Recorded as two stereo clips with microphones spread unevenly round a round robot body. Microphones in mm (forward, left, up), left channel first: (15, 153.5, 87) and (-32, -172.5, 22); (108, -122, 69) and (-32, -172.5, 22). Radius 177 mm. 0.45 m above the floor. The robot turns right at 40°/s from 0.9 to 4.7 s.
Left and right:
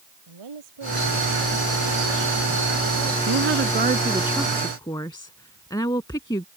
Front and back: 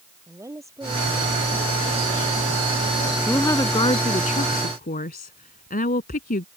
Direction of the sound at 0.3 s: 90° right.